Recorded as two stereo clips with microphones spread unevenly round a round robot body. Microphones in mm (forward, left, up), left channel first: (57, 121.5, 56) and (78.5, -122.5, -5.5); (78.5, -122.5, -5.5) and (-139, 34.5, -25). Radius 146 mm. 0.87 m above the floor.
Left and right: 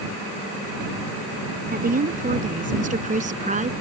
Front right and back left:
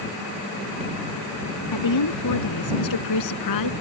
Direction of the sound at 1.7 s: 30° right.